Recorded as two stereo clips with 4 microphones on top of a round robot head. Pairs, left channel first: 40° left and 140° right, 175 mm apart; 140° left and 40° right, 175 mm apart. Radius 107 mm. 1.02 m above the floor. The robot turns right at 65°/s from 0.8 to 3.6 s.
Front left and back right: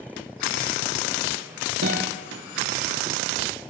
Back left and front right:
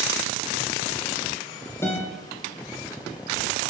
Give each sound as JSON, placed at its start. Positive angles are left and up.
{"t": 1.8, "sound": "a guitar", "azimuth_deg": -145, "distance_m": 5.0}